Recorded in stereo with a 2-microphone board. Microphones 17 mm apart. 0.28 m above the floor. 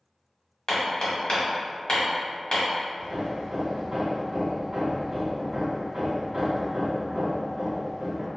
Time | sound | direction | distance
0.7 | hammering | 50° left (ahead or behind) | 1.1 m
3.0 | hammering | 45° right (ahead or behind) | 0.9 m